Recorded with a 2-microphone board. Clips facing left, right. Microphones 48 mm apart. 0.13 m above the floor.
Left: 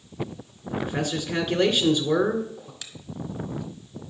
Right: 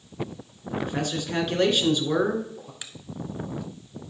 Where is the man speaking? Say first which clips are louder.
Left 1 dB; 5° left (ahead or behind), 1.8 m.